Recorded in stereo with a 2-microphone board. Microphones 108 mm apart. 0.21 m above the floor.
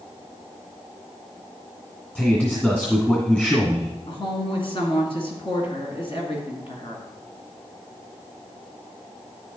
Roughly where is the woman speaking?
Left.